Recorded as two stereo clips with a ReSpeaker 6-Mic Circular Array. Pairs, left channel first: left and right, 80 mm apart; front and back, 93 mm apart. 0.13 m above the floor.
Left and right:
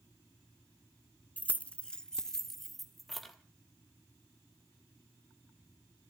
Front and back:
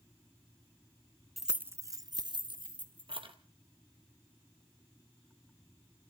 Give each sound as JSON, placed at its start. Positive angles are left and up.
{"t": 1.4, "sound": "keys jangling", "azimuth_deg": 90, "distance_m": 0.7}